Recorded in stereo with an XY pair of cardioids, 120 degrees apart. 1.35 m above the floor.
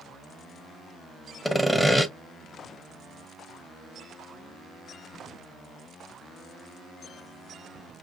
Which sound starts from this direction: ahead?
Sawing, at 1.4 s.